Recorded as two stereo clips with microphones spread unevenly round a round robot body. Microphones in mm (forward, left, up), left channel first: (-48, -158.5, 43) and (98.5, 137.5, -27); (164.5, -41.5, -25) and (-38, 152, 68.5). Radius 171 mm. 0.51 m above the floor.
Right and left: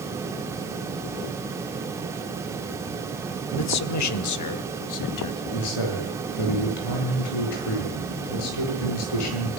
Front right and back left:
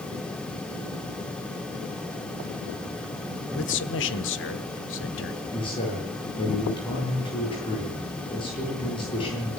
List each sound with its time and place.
3.5 s a man speaking: 70° right, 1.5 m; by 5.4 s 85° right, 3 m
5.5 s a man speaking: 115° right, 9.5 m